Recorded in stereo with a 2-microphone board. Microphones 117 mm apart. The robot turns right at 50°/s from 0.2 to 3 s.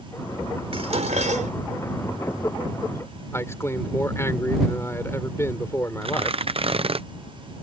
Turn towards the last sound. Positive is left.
turn(degrees=-50)  # may be behind; listen again after turning